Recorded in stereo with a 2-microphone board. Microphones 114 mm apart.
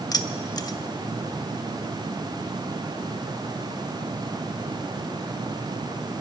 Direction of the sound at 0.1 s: 35° left (ahead or behind).